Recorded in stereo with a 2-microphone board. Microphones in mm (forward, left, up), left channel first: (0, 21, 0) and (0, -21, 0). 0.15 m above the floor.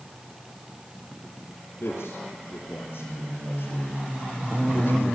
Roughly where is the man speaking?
Left.